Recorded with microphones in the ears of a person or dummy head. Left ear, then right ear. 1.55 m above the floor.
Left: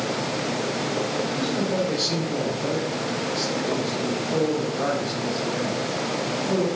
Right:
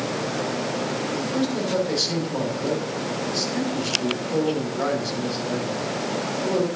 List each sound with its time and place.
1.1 s a man speaking: 40° right (ahead or behind), 5 m